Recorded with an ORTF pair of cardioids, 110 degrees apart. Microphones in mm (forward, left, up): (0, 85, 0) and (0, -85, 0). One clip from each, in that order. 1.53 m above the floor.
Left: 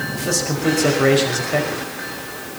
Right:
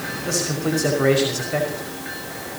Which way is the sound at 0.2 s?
15° left.